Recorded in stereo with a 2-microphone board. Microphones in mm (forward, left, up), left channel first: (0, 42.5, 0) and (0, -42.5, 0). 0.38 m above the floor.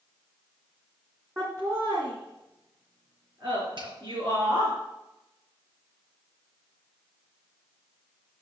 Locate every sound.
1.4 s laughter: 35° right (ahead or behind), 3 m; by 4.7 s 50° right (ahead or behind), 5 m
3.8 s a finger snap: 70° right (ahead or behind), 3.5 m